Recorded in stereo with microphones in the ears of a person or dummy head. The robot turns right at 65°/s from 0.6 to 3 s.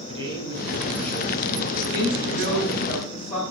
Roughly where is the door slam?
No door slam in this recording.